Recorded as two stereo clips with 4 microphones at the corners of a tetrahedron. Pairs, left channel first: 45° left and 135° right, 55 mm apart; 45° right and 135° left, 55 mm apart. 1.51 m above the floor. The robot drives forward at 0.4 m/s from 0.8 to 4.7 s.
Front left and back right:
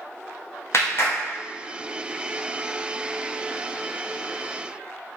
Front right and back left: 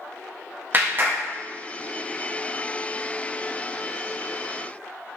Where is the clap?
80° left, 1.0 m; by 1.2 s 85° left, 1.0 m.